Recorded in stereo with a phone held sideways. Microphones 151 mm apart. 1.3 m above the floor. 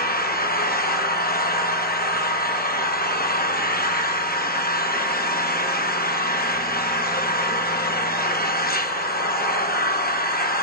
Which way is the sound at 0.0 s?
80° left.